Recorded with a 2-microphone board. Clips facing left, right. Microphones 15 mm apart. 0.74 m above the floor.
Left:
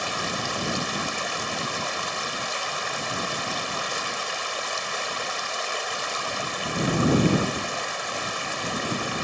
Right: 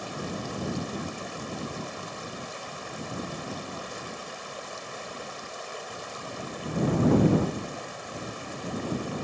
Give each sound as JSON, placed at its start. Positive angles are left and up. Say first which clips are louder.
{"t": 0.0, "sound": "running water", "louder": "left 8 dB", "side_deg": 40}